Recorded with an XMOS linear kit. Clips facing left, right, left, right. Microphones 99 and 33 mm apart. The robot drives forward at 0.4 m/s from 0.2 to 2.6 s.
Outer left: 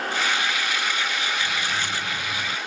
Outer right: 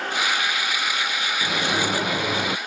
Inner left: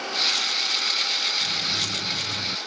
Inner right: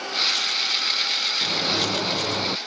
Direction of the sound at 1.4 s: 65° right (ahead or behind).